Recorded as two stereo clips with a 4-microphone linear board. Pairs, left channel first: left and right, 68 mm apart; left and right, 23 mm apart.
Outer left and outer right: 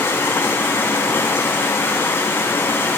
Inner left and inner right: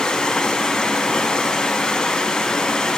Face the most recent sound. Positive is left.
turn(degrees=35)  # may be behind; listen again after turning